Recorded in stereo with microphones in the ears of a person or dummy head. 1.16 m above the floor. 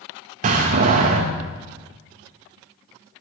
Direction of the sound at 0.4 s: 40° right (ahead or behind).